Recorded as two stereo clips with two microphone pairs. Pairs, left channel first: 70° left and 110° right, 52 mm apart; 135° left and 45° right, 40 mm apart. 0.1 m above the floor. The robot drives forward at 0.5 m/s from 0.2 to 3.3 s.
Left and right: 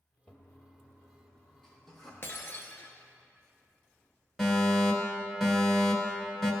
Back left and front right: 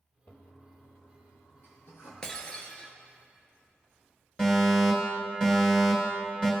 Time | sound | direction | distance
0.3 | a toilet flushing | 130° left | 1.0 m
2.2 | breaking glass | 70° left | 1.0 m
4.4 | a fire alarm | 140° left | 2 m